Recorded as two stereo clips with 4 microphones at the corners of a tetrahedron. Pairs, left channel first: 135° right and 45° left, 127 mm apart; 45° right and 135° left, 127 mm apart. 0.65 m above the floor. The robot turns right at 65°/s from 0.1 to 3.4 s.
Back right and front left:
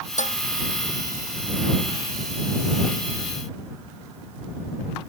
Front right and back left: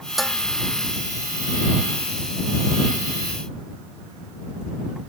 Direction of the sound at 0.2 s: 135° right.